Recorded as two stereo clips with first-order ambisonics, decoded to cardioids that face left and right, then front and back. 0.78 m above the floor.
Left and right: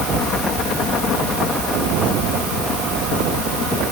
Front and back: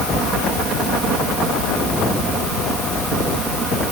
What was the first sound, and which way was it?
Only background noise.